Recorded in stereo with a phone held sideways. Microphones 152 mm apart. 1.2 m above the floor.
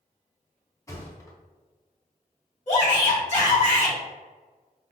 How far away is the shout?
About 1.6 m.